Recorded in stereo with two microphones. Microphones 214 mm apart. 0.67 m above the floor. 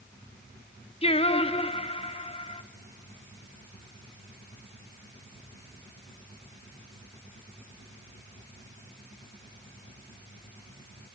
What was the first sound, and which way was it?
Singing, 25° left (ahead or behind).